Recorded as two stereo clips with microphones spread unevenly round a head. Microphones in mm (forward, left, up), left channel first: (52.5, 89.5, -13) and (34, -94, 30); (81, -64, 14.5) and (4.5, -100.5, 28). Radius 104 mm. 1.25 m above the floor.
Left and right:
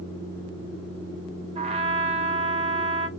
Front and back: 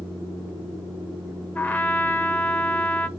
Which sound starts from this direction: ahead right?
A trumpet, at 1.6 s.